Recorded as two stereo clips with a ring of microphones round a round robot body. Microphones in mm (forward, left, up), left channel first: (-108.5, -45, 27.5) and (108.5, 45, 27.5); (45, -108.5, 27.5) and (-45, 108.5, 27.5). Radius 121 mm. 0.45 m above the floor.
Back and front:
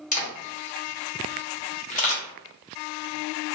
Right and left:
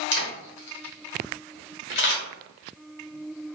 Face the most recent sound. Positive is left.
turn(degrees=-100)